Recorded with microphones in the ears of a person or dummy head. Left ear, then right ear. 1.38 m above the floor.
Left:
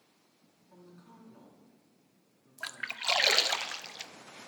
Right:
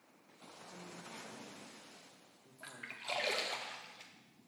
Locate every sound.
0.7 s a woman speaking: 5° right (ahead or behind), 2.5 m
2.6 s a splash: 45° left (ahead or behind), 0.5 m